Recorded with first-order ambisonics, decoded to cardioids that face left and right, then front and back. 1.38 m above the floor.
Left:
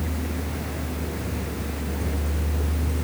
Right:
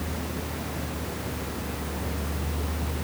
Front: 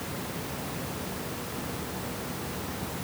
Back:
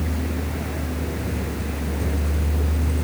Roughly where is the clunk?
I don't hear a clunk.